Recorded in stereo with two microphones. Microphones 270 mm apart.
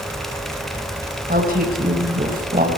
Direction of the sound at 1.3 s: 35° right (ahead or behind).